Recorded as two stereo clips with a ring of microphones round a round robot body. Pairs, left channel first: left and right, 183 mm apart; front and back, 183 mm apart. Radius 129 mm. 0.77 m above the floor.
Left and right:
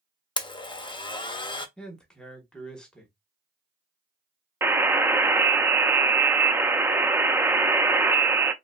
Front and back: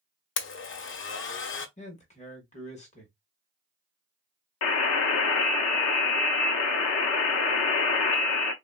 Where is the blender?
20° left, 0.5 m.